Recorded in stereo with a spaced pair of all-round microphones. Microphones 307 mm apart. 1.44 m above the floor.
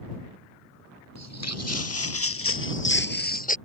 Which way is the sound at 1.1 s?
60° left (ahead or behind).